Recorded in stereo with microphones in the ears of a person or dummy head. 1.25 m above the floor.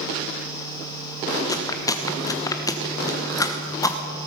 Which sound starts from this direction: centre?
Chewing, at 1.5 s.